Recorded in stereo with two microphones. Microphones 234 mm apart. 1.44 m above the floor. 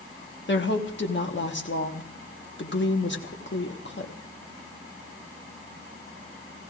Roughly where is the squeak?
No squeak in this recording.